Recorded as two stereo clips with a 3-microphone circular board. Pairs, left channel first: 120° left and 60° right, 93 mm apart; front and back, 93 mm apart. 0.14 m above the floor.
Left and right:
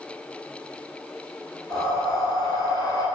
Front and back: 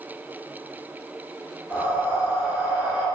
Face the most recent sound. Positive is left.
turn(degrees=120)